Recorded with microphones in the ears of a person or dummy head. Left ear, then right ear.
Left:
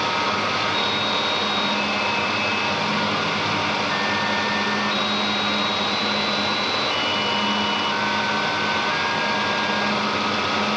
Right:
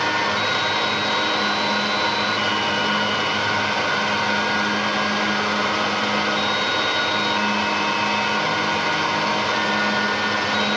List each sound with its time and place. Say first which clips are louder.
0.0 s a fan: right 1 dB; 70° right (ahead or behind), 6 m